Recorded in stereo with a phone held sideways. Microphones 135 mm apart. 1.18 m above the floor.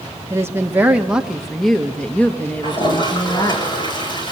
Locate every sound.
0.3 s a woman speaking: 25° right (ahead or behind), 1.5 m; by 3.6 s 25° left (ahead or behind), 2 m
2.6 s a toilet flushing: 35° left (ahead or behind), 5.5 m